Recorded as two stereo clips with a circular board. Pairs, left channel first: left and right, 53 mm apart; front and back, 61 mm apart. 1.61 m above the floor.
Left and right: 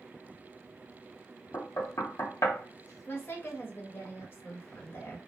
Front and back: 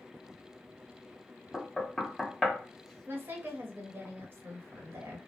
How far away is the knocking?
About 0.7 m.